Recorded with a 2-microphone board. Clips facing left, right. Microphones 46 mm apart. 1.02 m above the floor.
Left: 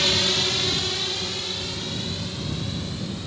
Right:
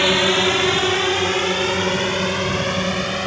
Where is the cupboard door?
I don't hear a cupboard door.